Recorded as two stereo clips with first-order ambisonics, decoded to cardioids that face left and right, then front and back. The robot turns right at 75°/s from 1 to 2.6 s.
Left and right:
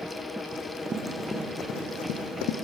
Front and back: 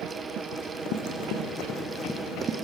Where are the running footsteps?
25° right, 4 m; by 2.5 s 125° left, 2.5 m.